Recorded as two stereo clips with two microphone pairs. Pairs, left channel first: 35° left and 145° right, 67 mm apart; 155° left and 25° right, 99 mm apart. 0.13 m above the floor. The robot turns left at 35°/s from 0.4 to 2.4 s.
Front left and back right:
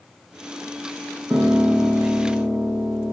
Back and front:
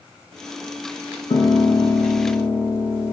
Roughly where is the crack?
No crack in this recording.